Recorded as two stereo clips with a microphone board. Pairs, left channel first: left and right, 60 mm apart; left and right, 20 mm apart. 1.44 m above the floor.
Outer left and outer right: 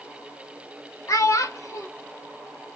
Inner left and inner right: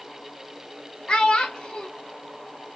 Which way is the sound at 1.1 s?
55° left (ahead or behind).